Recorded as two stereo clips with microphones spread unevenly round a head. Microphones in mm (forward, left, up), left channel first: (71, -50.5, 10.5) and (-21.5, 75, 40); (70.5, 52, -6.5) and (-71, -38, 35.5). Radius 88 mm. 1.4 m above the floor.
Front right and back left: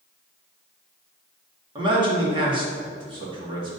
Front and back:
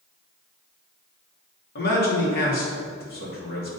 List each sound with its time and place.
1.8 s a man speaking: 65° left, 2.5 m